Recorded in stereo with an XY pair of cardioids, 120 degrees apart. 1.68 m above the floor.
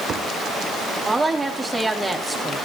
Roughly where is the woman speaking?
Ahead.